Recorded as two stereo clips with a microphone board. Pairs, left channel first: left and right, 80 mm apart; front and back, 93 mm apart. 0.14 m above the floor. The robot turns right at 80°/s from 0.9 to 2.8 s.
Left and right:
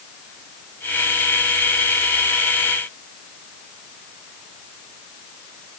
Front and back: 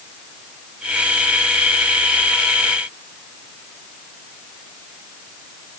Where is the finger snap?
I don't hear a finger snap.